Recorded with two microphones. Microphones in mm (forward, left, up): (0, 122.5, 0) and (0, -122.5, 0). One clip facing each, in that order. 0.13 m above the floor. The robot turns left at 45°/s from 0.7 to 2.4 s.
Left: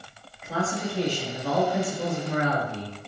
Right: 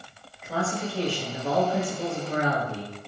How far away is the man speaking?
About 1.7 m.